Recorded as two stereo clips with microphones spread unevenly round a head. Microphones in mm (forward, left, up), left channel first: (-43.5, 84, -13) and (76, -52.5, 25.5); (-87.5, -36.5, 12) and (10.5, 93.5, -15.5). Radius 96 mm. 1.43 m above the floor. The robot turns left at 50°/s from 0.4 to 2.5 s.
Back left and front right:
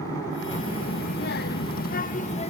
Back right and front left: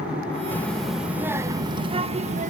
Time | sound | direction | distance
0.5 | a child speaking | 175° left | 0.7 m